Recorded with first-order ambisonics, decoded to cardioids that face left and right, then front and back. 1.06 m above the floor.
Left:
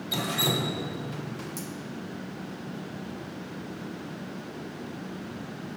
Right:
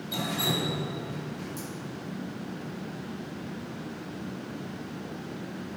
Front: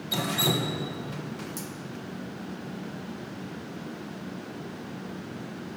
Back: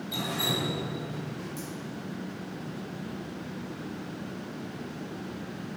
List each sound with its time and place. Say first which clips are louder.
0.1 s dripping: left 2 dB, front 3 dB; 40° left, 0.9 m